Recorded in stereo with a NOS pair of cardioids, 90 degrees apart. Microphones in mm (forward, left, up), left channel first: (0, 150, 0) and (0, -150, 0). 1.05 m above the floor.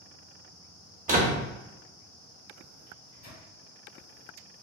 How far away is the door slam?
About 1.0 m.